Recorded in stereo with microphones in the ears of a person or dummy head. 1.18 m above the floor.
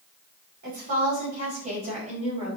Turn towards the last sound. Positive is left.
turn(degrees=-25)  # may be behind; listen again after turning